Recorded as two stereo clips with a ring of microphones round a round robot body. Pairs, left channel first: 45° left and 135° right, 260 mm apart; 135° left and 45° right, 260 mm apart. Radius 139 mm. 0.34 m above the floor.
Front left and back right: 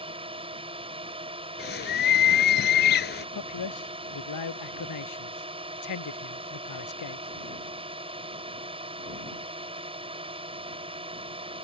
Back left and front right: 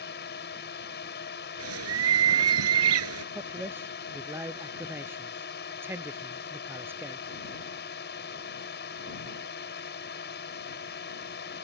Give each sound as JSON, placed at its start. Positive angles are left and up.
{"t": 0.0, "sound": "a drone", "azimuth_deg": 165}
{"t": 1.6, "sound": "a bird", "azimuth_deg": -10}
{"t": 3.4, "sound": "a man speaking", "azimuth_deg": 35}